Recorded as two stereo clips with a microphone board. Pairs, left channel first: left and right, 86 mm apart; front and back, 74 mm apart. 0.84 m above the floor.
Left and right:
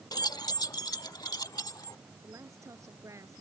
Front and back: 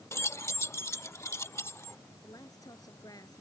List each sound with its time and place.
0.1 s keys jangling: 50° left
2.2 s a woman speaking: 35° right